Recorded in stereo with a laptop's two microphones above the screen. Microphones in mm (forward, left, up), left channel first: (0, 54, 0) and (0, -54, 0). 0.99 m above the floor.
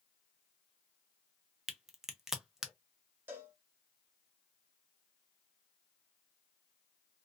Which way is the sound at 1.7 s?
5° right (ahead or behind).